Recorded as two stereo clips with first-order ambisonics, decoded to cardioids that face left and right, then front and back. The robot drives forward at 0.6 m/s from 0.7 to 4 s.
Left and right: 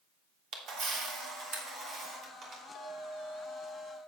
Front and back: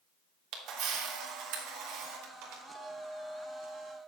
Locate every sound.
0.5 s a camera shutter: 135° right, 1.7 m; by 2.6 s 155° right, 2.5 m
2.8 s a clink: 60° left, 2.5 m; by 4.0 s 75° left, 2 m